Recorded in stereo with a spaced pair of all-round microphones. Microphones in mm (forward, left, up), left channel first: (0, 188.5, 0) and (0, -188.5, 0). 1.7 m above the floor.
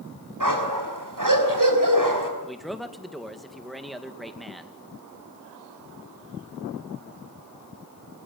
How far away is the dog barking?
About 5 m.